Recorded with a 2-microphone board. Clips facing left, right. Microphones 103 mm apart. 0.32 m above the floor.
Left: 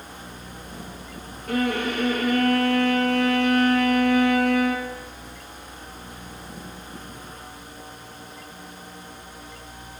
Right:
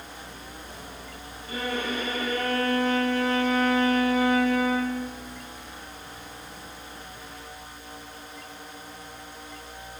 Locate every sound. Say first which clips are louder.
1.5 s a violin: left 6 dB; 75° left (ahead or behind), 3 m